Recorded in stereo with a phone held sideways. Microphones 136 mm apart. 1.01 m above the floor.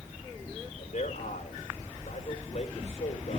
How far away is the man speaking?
About 4 m.